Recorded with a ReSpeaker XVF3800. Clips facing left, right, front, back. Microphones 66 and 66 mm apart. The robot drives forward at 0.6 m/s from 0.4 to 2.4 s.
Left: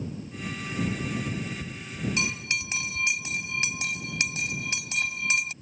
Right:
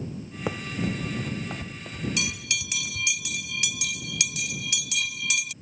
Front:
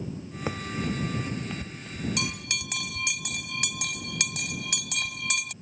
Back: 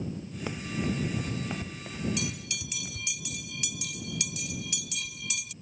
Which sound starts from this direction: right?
Running footsteps, at 0.5 s.